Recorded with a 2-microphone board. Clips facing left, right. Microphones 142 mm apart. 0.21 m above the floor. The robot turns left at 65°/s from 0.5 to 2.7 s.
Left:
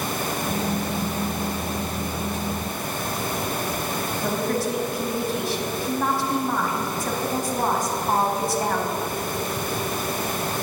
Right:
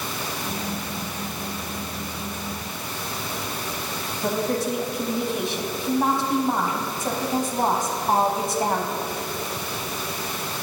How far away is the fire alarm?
No fire alarm in this recording.